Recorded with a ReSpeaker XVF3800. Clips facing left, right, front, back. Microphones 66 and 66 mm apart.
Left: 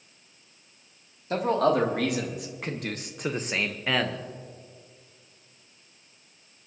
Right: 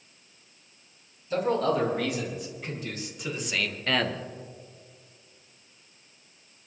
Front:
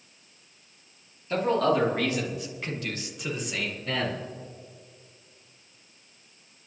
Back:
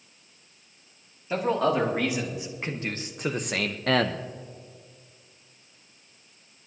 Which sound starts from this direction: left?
A man speaking, at 1.3 s.